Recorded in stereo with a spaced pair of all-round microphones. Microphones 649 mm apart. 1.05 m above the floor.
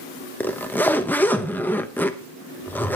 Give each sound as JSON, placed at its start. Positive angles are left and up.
{"t": 0.4, "sound": "a zipper", "side_deg": 5, "distance_m": 1.0}